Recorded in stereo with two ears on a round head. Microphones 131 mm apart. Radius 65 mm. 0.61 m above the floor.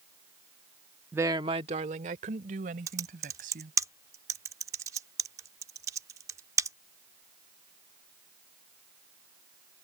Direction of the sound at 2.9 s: 20° right (ahead or behind).